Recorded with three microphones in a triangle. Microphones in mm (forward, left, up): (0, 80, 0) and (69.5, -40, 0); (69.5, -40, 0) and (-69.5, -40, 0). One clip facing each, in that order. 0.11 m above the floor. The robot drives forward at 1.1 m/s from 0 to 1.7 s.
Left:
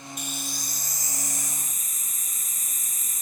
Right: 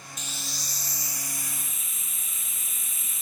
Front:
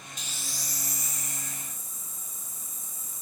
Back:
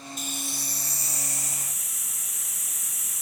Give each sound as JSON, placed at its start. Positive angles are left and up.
{"t": 0.2, "sound": "a hiss", "azimuth_deg": 145}